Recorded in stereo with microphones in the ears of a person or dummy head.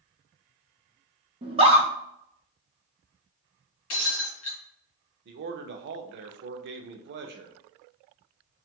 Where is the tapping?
No tapping in this recording.